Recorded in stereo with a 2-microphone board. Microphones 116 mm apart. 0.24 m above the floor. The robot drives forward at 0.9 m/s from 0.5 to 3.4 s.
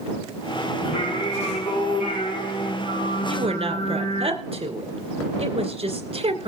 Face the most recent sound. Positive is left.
turn(degrees=-55)  # may be behind; listen again after turning